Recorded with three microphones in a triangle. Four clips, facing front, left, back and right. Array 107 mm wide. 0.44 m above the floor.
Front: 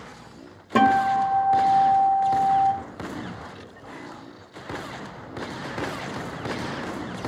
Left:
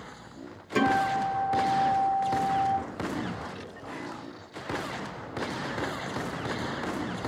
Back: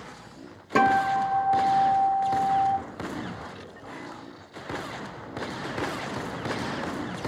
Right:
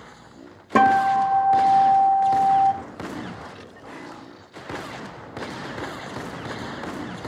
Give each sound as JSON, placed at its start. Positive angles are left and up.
{"t": 0.8, "sound": "a guitar", "azimuth_deg": -85, "distance_m": 1.1}